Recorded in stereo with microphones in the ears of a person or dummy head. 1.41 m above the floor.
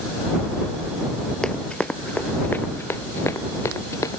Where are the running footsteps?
Centre (ahead or behind); by 4.2 s 15° left (ahead or behind).